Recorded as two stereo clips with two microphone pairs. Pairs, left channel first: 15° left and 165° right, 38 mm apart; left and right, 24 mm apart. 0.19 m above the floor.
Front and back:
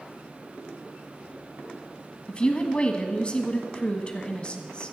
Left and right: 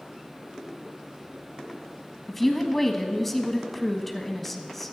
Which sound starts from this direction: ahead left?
A woman speaking, at 2.3 s.